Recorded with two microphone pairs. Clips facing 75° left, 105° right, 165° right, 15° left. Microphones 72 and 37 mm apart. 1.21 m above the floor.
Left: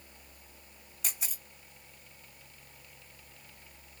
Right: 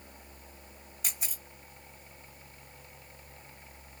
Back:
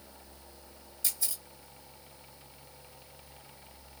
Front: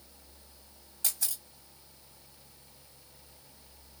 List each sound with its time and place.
1.0 s a camera shutter: 15° right, 2.5 m